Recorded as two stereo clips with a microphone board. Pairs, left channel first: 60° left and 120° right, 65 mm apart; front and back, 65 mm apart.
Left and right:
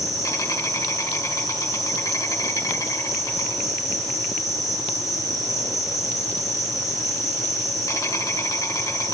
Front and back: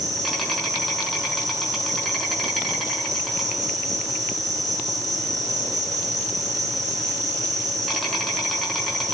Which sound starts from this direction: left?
An insect, at 0.0 s.